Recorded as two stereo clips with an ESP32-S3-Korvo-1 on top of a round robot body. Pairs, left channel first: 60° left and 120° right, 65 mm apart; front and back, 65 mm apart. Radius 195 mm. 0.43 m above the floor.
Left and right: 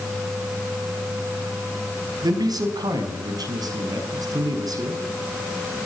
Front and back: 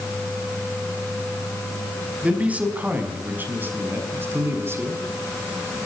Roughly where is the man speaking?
Right.